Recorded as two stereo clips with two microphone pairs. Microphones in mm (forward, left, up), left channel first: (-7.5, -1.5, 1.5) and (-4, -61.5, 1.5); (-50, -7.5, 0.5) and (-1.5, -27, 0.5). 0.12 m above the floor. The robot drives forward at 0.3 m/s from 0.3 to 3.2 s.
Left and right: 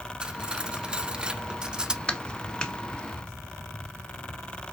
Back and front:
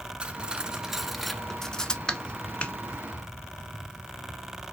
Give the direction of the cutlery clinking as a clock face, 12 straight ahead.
2 o'clock.